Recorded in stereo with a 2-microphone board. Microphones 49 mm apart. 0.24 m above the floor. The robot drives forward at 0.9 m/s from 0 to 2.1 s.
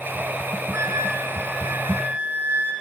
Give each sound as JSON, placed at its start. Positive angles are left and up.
{"t": 0.7, "sound": "a flute", "side_deg": -70, "distance_m": 2.0}